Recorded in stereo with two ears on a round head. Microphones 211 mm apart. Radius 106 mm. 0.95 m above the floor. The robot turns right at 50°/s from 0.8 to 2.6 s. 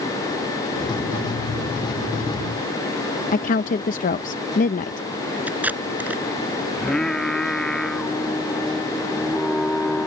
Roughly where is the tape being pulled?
Centre.